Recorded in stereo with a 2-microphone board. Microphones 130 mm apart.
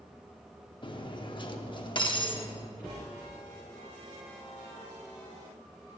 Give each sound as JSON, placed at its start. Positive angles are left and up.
{"t": 0.8, "sound": "cutlery clinking", "side_deg": 40, "distance_m": 0.8}
{"t": 2.8, "sound": "a cupboard door", "side_deg": 35, "distance_m": 3.5}